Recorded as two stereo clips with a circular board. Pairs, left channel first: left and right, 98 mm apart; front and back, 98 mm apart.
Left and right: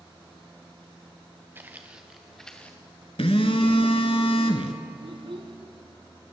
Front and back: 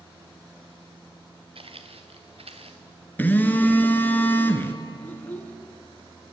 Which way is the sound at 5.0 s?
70° right.